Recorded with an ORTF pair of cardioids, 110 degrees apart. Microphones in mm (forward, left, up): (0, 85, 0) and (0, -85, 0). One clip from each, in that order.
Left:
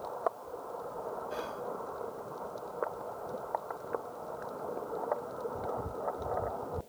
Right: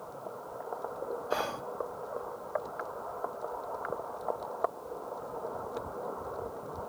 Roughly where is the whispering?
Ahead right.